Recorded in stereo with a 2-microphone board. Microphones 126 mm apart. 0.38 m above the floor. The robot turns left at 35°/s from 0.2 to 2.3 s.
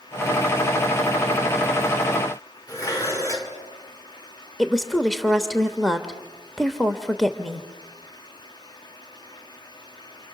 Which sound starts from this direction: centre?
A woman speaking, at 4.6 s.